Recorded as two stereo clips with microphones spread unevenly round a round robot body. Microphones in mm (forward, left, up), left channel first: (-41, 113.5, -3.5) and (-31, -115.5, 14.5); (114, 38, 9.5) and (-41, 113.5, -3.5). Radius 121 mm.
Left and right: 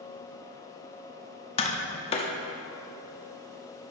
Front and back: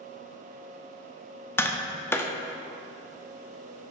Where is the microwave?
No microwave in this recording.